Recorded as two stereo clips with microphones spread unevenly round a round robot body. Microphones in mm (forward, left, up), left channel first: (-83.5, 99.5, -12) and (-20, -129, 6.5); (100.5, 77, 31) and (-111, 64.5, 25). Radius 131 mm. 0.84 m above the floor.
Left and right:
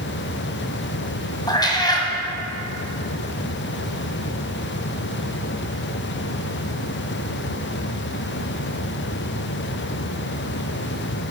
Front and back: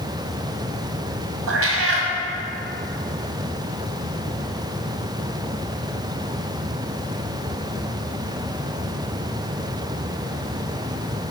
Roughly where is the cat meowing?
Behind.